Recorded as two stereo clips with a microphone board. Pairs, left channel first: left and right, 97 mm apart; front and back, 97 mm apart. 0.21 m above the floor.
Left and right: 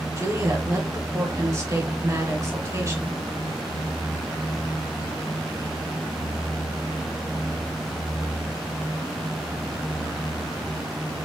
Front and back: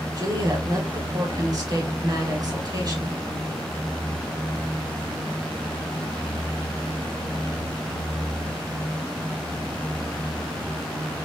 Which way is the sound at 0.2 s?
145° right.